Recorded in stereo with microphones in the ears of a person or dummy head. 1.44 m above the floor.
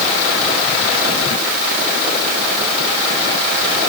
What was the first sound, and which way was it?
Only background noise.